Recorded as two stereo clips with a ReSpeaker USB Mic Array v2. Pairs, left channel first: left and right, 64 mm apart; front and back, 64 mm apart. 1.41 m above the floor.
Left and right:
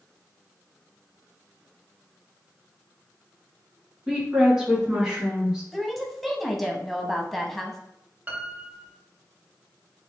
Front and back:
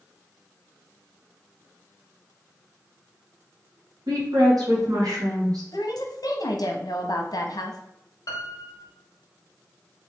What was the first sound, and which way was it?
A woman speaking, 170° right.